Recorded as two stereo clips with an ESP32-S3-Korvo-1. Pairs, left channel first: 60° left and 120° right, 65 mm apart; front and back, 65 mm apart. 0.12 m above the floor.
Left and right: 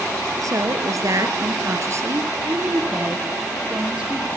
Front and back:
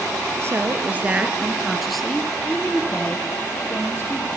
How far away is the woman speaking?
About 2 m.